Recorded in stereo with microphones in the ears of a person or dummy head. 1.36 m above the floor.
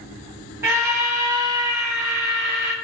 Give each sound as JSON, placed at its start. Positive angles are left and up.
{"t": 0.6, "sound": "a scream", "side_deg": -15, "distance_m": 0.5}